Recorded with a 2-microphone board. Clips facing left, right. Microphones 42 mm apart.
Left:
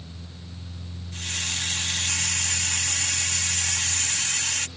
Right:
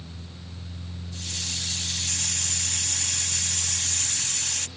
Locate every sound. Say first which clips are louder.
1.1 s a hiss: left 5 dB; 55° left (ahead or behind)